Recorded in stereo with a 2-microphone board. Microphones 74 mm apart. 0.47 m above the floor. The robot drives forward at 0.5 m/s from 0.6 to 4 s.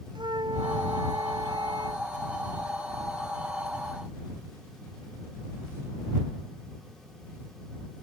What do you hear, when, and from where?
0.1 s a flute: 75° right (ahead or behind); by 2.0 s 70° right (ahead or behind)